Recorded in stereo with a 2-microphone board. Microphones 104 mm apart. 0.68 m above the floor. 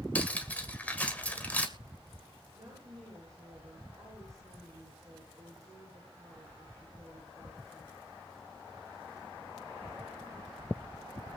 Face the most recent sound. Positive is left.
turn(degrees=-35)  # may be behind; listen again after turning